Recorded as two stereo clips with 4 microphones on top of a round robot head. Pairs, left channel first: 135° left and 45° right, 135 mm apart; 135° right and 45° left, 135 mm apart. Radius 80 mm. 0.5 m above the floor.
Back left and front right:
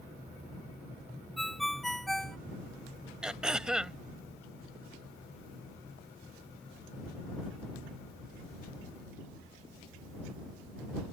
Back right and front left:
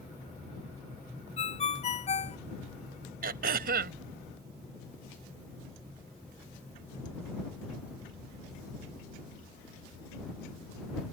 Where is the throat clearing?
40° left.